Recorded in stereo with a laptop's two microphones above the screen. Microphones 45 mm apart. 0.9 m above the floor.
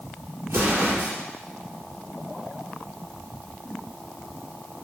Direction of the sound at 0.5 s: 75° right (ahead or behind).